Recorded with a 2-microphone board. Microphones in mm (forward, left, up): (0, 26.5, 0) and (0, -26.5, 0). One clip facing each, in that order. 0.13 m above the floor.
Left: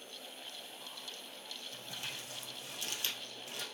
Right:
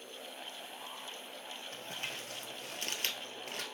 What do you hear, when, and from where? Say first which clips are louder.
1.7 s crumpling: right 3 dB; 50° right (ahead or behind), 1.7 m